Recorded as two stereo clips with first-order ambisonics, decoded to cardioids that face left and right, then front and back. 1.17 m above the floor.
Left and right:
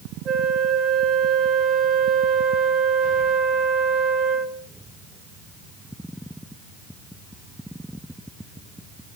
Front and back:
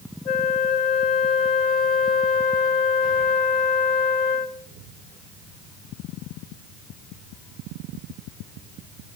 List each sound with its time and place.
0.2 s a flute: 30° right, 0.9 m